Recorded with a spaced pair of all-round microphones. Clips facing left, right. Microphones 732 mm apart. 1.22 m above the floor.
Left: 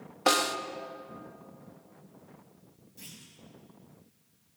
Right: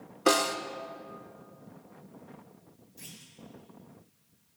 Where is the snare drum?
25° left (ahead or behind), 0.8 m.